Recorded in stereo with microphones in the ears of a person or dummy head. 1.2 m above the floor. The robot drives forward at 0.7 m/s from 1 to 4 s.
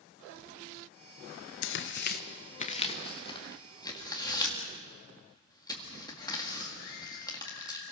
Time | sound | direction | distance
1.6 | tearing paper | 65° left (ahead or behind) | 0.8 m